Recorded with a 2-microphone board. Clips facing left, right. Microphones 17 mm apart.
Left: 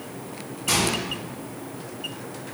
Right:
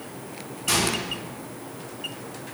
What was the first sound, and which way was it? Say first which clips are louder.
A microwave: left 1 dB; 10° right (ahead or behind).